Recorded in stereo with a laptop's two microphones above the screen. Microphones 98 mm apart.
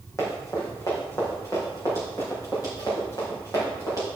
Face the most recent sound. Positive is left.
turn(degrees=40)  # may be behind; listen again after turning